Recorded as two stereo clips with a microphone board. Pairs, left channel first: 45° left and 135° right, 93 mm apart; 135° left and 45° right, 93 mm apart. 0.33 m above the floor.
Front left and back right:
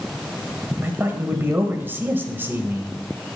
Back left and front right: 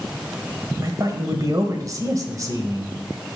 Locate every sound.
0.8 s a man speaking: 80° right, 1.4 m